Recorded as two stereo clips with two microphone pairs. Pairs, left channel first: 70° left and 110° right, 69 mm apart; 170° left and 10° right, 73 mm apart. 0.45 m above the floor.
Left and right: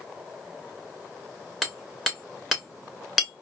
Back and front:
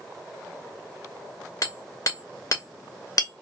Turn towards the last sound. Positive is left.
turn(degrees=165)